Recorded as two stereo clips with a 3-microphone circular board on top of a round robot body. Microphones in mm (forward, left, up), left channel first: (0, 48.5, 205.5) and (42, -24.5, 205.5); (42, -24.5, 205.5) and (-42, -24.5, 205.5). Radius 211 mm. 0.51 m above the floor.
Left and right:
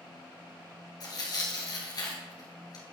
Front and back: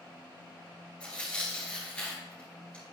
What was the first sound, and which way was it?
Tearing paper, 80° left.